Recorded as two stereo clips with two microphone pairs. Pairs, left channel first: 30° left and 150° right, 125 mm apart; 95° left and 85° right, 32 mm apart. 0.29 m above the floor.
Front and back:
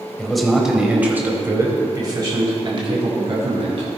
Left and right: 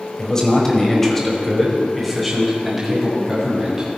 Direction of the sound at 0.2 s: 110° left.